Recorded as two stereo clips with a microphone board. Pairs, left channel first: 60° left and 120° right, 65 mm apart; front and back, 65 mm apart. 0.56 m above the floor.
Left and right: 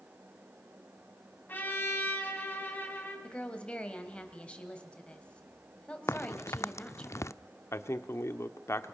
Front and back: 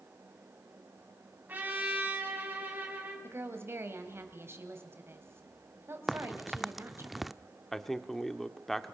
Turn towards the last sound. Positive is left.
turn(degrees=85)